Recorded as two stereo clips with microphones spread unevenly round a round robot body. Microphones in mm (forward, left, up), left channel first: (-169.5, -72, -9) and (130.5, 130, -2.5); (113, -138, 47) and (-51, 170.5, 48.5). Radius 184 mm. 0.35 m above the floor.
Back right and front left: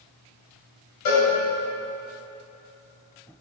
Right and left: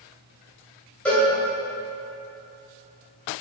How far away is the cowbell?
About 2.5 m.